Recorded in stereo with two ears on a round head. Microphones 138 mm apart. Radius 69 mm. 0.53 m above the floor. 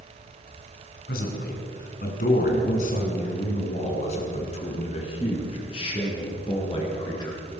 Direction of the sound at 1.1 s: 65° left (ahead or behind).